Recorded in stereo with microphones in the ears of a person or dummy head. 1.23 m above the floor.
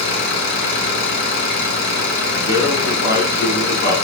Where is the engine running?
65° left (ahead or behind), 2.5 m.